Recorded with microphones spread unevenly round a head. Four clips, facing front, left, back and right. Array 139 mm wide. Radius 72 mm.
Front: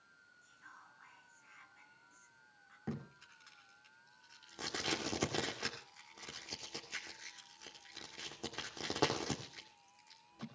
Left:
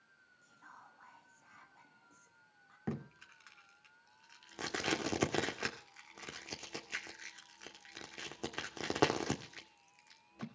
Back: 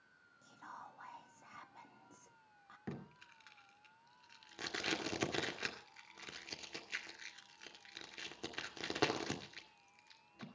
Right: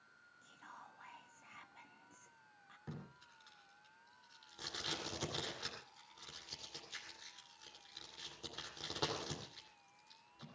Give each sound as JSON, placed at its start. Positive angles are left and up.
{"t": 0.4, "sound": "whispering", "azimuth_deg": -175, "distance_m": 1.0}
{"t": 2.9, "sound": "tape being pulled", "azimuth_deg": 90, "distance_m": 2.0}